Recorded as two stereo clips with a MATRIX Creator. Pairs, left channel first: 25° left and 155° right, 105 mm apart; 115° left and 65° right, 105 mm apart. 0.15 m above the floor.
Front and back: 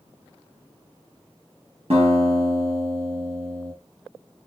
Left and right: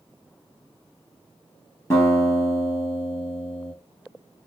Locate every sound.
1.9 s a guitar: 175° left, 3 m